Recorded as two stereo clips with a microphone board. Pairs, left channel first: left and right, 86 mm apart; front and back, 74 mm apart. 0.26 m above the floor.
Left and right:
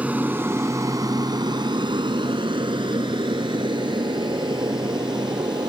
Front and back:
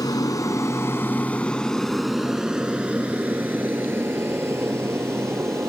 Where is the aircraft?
20° right; by 5.7 s 125° right.